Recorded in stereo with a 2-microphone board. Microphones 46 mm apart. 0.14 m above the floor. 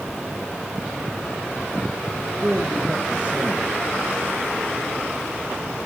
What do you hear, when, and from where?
2.4 s a man speaking: 20° right (ahead or behind), 1.9 m